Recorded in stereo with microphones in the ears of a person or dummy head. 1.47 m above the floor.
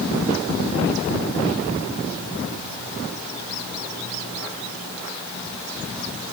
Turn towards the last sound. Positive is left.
No sound to turn to.